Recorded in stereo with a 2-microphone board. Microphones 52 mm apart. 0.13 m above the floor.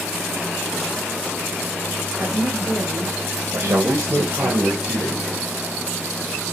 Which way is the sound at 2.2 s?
30° right (ahead or behind).